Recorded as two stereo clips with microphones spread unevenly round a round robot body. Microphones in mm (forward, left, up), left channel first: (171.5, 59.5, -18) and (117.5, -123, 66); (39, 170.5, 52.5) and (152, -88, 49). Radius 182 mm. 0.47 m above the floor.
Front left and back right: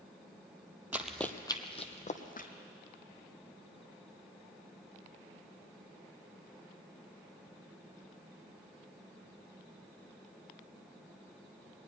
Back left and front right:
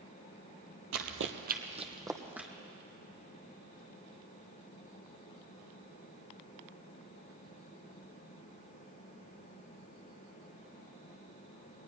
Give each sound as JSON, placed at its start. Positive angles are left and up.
{"t": 0.9, "sound": "running footsteps", "azimuth_deg": -35, "distance_m": 1.1}